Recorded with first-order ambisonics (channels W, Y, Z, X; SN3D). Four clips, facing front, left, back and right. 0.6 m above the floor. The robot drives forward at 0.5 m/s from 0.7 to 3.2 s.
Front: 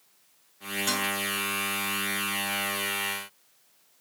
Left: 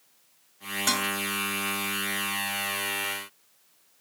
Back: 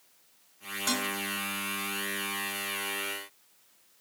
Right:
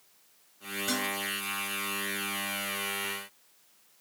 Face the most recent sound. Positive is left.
turn(degrees=120)